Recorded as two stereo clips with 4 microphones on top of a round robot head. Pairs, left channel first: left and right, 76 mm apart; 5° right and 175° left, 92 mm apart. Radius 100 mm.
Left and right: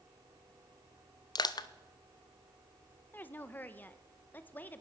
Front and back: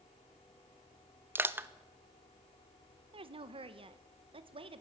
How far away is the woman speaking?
About 1.6 m.